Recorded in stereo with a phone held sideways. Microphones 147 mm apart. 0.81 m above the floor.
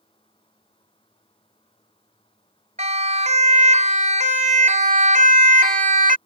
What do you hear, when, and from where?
0.0 s a fan: 35° left (ahead or behind)
2.8 s a siren: 50° right (ahead or behind); by 6.2 s 60° right (ahead or behind)